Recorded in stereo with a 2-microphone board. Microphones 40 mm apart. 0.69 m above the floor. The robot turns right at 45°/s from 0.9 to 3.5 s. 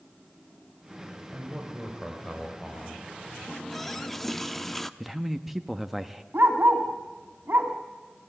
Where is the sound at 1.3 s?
30° right, 3 m; by 3.0 s 45° left, 3 m.